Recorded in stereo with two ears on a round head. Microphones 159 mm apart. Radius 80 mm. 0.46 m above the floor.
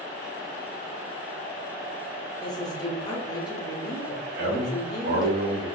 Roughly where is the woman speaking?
Left.